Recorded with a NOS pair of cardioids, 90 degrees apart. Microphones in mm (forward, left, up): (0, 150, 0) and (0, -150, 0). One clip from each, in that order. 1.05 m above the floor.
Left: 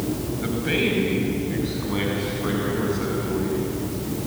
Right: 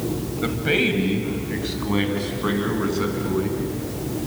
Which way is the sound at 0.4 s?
45° right.